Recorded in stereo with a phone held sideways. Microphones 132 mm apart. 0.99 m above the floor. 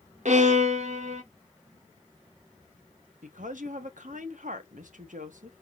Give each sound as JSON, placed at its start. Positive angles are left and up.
{"t": 0.2, "sound": "a violin", "side_deg": -60, "distance_m": 1.0}
{"t": 3.2, "sound": "a woman speaking", "side_deg": -70, "distance_m": 1.1}